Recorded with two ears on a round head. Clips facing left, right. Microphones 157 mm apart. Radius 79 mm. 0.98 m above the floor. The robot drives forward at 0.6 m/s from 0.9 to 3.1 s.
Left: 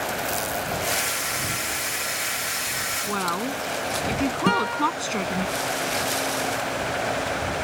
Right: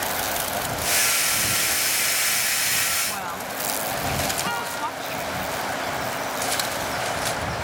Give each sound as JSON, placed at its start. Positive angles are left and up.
{"t": 3.0, "sound": "a woman speaking", "side_deg": 65}
{"t": 4.5, "sound": "a guitar", "side_deg": 65}